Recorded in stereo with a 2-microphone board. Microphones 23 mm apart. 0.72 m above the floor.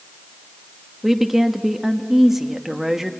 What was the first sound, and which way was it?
A woman speaking, 10° right (ahead or behind).